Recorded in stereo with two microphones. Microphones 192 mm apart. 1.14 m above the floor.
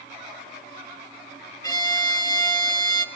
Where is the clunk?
No clunk in this recording.